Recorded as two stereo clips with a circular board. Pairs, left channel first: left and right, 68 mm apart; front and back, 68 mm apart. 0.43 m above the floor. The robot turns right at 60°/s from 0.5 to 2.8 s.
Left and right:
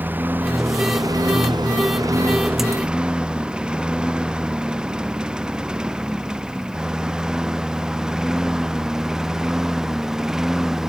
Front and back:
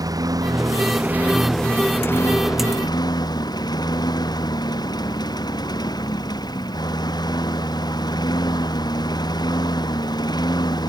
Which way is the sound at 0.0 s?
155° right.